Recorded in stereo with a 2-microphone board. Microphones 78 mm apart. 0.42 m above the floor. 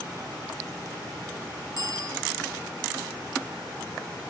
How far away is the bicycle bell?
About 3 m.